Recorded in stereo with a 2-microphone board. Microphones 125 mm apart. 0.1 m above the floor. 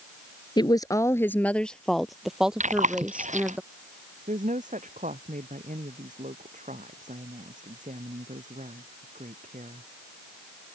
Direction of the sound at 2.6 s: 70° right (ahead or behind).